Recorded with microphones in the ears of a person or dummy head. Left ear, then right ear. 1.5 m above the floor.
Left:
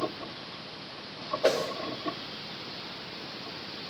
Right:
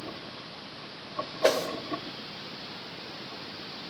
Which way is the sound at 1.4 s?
10° right (ahead or behind).